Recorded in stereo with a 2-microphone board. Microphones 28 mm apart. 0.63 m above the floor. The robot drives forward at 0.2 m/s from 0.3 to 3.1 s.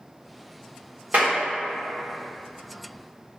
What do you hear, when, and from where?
1.1 s a clap: 50° right (ahead or behind), 1.5 m